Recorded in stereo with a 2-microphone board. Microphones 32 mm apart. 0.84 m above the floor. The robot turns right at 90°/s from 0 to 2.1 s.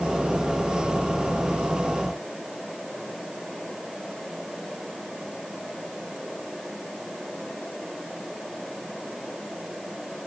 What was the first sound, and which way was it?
Only background noise.